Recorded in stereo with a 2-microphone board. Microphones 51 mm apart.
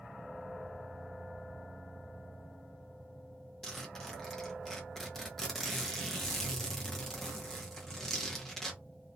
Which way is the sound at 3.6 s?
5° left (ahead or behind).